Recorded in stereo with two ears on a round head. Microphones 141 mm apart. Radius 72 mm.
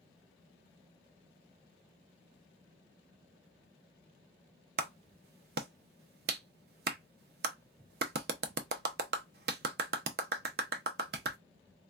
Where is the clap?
60° right (ahead or behind), 0.6 m.